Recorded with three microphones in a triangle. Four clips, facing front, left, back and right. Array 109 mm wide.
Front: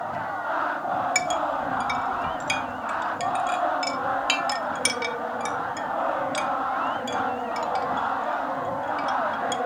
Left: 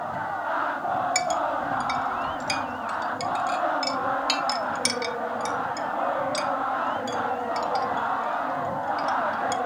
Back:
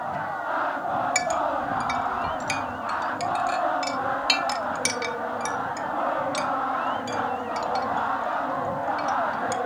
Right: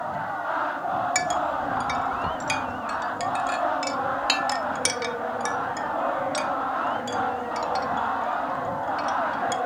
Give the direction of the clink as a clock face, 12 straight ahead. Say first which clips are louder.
Even, back 1 dB; 3 o'clock.